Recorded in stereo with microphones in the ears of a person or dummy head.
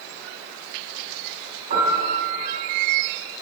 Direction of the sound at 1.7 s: 45° right (ahead or behind).